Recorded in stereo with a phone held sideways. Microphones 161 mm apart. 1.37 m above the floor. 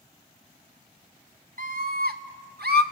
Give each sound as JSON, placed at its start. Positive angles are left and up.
{"t": 1.6, "sound": "a scream", "side_deg": -60, "distance_m": 1.9}